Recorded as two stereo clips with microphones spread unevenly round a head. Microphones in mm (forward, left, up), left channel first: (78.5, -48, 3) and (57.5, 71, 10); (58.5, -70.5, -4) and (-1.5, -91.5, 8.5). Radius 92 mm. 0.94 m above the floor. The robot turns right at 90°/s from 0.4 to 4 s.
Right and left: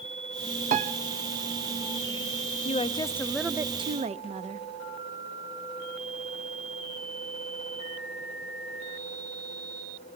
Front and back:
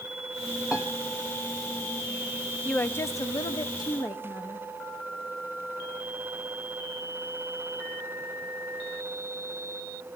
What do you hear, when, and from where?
0.7 s a piano: 105° left, 0.6 m; by 0.9 s 125° left, 0.6 m
2.6 s a woman speaking: 55° right, 0.8 m; by 4.7 s 65° left, 0.8 m